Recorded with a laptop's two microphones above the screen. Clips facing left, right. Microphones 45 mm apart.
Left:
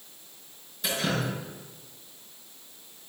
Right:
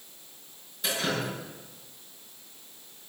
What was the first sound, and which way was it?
Dripping, 5° right (ahead or behind).